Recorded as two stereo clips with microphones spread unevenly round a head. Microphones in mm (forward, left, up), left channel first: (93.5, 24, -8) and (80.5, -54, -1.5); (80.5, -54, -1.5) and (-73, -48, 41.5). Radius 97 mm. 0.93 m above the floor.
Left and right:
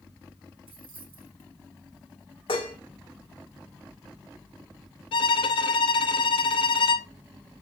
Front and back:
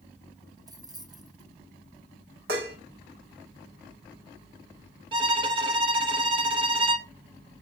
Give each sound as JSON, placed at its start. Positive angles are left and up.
{"t": 0.7, "sound": "keys jangling", "azimuth_deg": -115, "distance_m": 1.4}
{"t": 2.5, "sound": "dishes clattering", "azimuth_deg": 135, "distance_m": 1.3}
{"t": 5.1, "sound": "a violin", "azimuth_deg": 110, "distance_m": 0.5}